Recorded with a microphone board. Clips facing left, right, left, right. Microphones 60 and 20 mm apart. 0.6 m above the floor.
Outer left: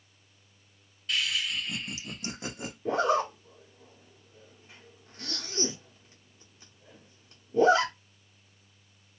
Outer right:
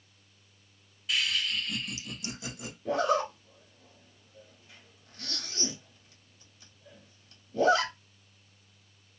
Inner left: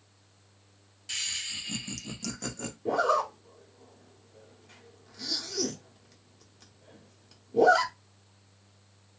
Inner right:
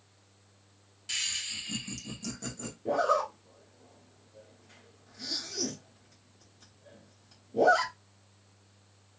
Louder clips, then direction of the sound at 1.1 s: Even, even; 5° right (ahead or behind).